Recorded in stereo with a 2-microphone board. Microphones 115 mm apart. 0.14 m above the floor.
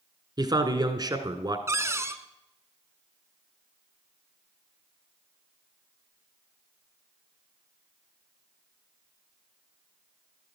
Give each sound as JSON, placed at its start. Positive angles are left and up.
{"t": 0.4, "sound": "a man speaking", "side_deg": -35, "distance_m": 1.2}
{"t": 1.7, "sound": "a cupboard door", "side_deg": -25, "distance_m": 0.7}